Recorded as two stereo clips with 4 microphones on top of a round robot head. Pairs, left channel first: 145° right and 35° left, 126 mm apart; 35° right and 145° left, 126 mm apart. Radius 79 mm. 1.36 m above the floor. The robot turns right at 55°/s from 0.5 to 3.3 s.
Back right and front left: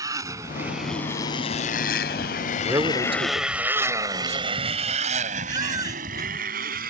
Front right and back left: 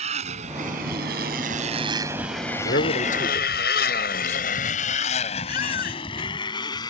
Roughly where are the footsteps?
I don't hear footsteps.